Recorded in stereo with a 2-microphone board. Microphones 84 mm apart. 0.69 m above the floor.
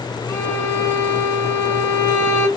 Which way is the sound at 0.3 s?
35° left (ahead or behind).